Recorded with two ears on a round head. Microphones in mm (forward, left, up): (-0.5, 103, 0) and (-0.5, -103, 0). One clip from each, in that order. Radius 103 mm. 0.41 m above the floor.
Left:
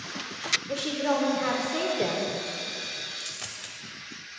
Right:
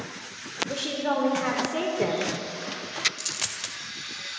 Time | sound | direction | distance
0.7 | a woman speaking | centre (ahead or behind) | 0.9 m
3.2 | a dropped coin | 30° right (ahead or behind) | 0.5 m